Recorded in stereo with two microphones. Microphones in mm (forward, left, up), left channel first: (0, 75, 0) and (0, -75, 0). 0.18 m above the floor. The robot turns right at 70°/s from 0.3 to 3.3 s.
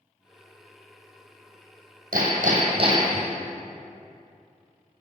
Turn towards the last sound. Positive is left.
turn(degrees=-10)